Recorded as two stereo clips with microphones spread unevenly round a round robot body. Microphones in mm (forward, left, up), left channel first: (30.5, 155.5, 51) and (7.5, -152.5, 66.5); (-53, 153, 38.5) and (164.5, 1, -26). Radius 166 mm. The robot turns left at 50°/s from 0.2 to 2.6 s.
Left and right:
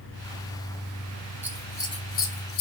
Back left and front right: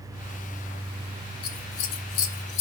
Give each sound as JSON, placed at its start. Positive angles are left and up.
{"t": 1.4, "sound": "scissors", "azimuth_deg": 180, "distance_m": 0.8}